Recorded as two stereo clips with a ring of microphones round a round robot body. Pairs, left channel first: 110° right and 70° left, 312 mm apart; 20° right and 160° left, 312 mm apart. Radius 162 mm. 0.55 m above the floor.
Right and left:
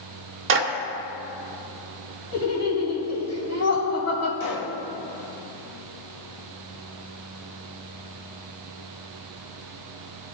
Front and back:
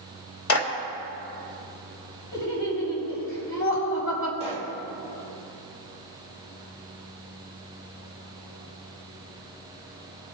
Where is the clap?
20° left, 1.8 m.